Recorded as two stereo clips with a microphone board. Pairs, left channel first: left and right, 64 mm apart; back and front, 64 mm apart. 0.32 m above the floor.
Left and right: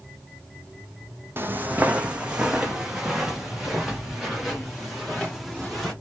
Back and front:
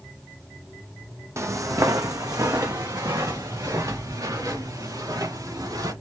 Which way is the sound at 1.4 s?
35° right.